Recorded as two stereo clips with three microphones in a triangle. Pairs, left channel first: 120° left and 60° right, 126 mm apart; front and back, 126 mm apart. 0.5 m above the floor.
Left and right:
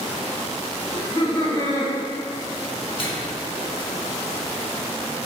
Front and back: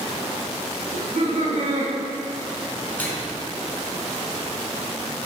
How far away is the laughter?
About 3 m.